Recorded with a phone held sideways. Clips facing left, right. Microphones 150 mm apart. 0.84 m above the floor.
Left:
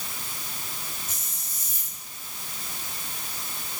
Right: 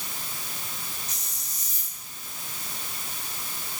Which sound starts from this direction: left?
A hiss, at 1.1 s.